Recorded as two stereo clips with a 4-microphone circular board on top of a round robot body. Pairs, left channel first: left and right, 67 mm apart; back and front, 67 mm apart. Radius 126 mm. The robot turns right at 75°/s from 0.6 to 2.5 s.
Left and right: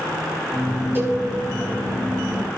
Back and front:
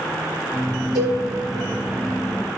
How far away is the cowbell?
About 4 m.